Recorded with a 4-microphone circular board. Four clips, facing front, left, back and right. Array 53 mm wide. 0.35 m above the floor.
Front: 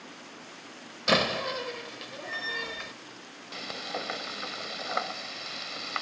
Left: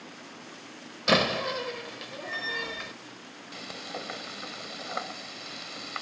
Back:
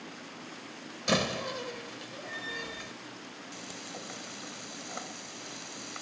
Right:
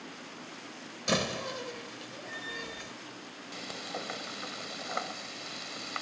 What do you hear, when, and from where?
1.1 s a door slam: 55° left
3.5 s frying: 5° left